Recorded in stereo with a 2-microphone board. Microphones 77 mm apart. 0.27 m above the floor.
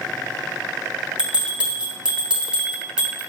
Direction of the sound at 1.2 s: 15° right (ahead or behind).